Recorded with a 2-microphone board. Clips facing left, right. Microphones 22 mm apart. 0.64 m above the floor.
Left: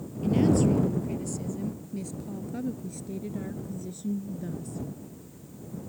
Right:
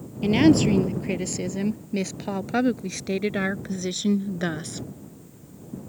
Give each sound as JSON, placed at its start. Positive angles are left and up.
{"t": 0.2, "sound": "a woman speaking", "side_deg": -55}